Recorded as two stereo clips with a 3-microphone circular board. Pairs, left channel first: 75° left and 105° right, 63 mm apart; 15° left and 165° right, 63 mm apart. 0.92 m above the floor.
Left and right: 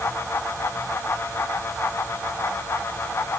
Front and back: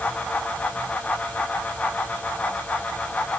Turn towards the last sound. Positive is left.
No sound to turn to.